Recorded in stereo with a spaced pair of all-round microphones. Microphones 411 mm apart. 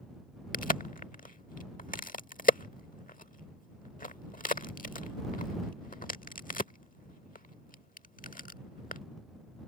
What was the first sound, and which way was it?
A crack, 20° left (ahead or behind).